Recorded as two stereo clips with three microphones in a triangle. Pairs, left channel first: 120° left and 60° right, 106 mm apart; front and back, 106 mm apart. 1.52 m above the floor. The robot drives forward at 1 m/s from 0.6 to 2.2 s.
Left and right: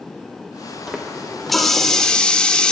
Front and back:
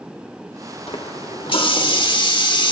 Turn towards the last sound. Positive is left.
turn(degrees=40)